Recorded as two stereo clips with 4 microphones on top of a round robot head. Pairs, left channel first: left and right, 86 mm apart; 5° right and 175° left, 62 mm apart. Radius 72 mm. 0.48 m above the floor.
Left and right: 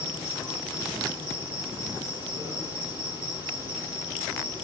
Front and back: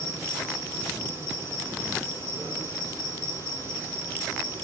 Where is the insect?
50° right, 4 m.